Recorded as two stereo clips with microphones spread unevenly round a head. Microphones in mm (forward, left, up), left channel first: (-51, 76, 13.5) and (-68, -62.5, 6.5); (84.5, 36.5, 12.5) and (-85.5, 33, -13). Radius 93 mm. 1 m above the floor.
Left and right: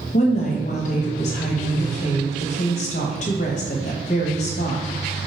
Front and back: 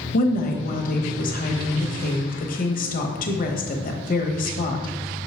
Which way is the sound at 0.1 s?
40° left.